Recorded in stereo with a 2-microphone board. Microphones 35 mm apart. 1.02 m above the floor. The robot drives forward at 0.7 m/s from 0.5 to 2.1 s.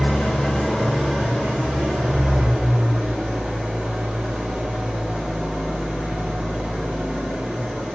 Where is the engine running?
15° left (ahead or behind), 1.5 m; by 8.0 s 10° left (ahead or behind), 2.5 m.